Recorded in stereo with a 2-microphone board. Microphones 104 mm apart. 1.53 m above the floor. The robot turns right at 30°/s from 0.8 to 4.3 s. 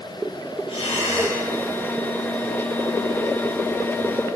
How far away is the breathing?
About 2 m.